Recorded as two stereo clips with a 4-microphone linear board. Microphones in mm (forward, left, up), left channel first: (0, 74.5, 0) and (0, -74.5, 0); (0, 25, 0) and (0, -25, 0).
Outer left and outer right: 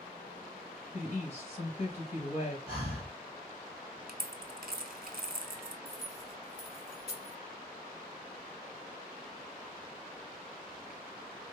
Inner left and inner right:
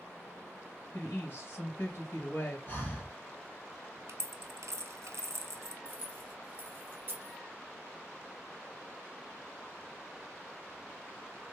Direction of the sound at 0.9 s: 45° left (ahead or behind).